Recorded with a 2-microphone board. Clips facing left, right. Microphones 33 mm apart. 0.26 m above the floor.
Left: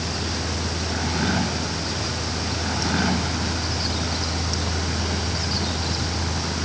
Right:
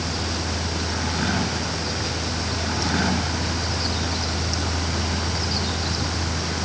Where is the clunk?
I don't hear a clunk.